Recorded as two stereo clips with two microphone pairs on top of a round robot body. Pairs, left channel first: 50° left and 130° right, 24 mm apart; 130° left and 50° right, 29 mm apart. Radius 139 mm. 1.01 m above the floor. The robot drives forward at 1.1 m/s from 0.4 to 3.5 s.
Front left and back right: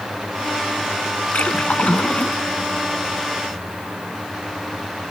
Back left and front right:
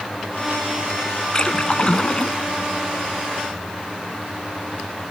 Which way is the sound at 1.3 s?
65° left.